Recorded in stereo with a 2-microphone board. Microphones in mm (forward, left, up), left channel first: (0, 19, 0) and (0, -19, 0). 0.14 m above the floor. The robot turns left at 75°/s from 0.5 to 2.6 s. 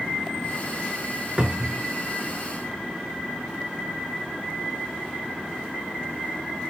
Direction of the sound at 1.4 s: 40° right.